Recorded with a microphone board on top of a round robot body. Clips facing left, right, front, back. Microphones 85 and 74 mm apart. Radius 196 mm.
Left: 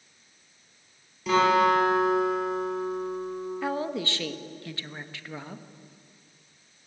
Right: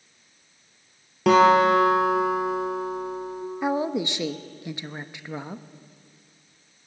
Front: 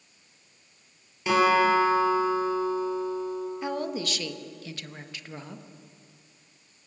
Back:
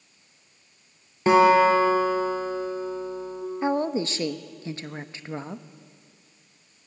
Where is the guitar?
125° right, 5 m.